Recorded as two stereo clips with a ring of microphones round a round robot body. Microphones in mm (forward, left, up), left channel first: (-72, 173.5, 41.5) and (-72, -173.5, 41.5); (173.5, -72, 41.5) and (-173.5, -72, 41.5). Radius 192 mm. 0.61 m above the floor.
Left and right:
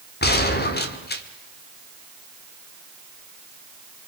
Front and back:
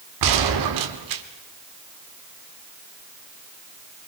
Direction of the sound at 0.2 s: 150° left.